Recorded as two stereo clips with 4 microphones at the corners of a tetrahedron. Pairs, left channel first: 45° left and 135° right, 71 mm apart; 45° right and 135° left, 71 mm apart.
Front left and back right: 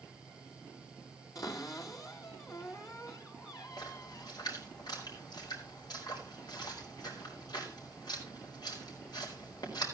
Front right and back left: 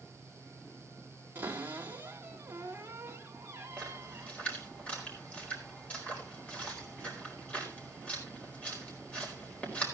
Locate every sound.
1.4 s a cupboard door: 75° left, 2.5 m
3.8 s a splash: 25° left, 4.5 m